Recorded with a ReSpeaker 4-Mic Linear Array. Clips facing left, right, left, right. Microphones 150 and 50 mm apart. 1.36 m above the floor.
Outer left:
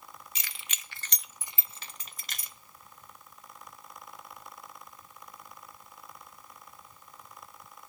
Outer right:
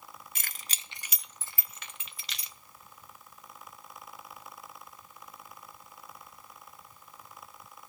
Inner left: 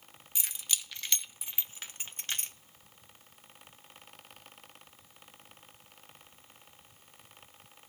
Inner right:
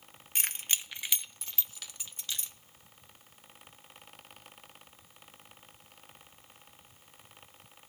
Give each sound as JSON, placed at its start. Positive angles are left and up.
{"t": 0.3, "sound": "keys jangling", "side_deg": -55, "distance_m": 0.7}